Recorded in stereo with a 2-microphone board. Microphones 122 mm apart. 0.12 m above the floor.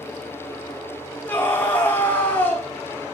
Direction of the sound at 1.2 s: 15° left (ahead or behind).